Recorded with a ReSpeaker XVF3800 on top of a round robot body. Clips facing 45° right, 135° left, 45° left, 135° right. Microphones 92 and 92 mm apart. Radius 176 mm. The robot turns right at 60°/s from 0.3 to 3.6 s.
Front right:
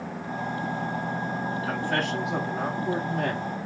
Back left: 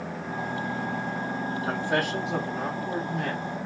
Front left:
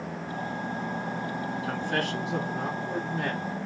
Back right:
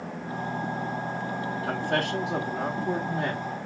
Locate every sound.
1.6 s a man speaking: 170° right, 1.2 m; by 3.5 s 60° right, 1.2 m